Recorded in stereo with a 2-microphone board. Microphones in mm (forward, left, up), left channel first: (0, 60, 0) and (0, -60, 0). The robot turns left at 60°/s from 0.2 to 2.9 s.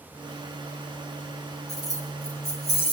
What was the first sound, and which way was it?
Keys jangling, 120° left.